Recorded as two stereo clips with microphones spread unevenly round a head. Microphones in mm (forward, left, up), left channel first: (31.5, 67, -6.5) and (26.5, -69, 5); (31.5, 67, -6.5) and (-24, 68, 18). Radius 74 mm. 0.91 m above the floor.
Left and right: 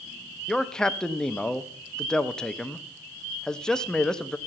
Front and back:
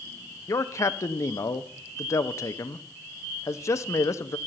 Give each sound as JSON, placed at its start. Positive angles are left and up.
{"t": 0.5, "sound": "a man speaking", "azimuth_deg": 5, "distance_m": 0.7}